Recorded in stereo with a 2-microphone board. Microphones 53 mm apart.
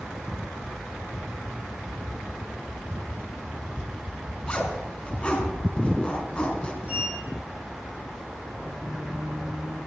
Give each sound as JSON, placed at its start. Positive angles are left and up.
{"t": 4.5, "sound": "a zipper", "side_deg": 20, "distance_m": 4.0}
{"t": 6.8, "sound": "a sliding door", "side_deg": -25, "distance_m": 6.0}